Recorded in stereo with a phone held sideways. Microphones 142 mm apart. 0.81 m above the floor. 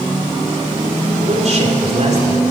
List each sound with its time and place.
1.2 s a man speaking: 50° right (ahead or behind), 3 m